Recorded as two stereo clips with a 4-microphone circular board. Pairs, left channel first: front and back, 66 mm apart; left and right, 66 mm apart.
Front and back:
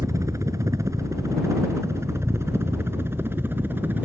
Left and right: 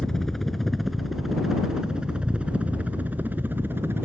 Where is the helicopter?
170° left; by 4.1 s 130° right.